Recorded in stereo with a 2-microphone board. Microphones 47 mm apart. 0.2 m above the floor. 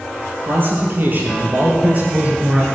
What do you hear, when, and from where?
0.4 s a man speaking: 45° right (ahead or behind), 4.5 m; by 2.6 s 30° right (ahead or behind), 3 m